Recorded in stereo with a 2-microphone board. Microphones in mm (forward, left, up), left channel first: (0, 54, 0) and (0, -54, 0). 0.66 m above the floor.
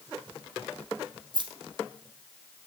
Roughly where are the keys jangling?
Right.